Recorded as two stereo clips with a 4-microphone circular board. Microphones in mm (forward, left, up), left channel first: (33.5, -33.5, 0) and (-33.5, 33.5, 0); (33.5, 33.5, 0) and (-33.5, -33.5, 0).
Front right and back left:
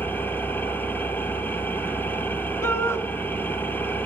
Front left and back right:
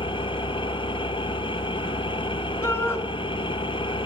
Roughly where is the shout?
Ahead.